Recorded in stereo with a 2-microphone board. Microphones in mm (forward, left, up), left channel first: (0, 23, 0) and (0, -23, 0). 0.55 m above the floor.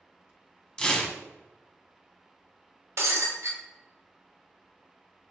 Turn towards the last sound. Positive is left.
turn(degrees=-75)  # may be behind; listen again after turning